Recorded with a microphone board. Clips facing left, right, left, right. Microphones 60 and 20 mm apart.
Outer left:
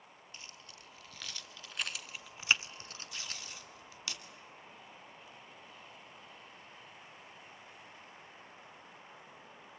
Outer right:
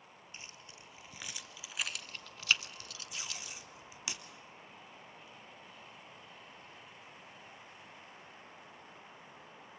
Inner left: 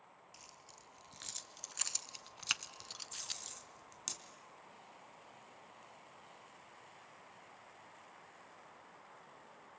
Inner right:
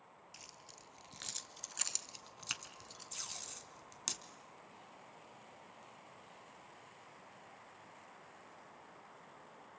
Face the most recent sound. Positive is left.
turn(degrees=-20)  # may be behind; listen again after turning